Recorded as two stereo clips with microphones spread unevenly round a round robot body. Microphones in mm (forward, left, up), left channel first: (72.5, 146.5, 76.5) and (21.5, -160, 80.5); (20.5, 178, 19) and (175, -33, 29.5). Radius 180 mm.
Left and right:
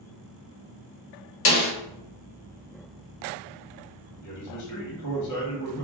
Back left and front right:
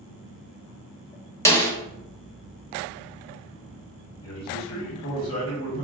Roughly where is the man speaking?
Left.